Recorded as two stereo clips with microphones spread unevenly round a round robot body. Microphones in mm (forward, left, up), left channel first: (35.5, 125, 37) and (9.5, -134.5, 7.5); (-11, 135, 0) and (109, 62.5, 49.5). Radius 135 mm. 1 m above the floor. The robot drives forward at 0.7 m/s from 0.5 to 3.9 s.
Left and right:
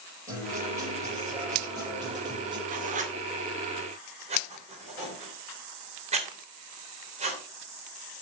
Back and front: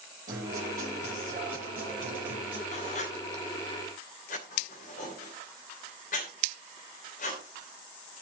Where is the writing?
155° right, 2 m; by 7.4 s 165° right, 3 m.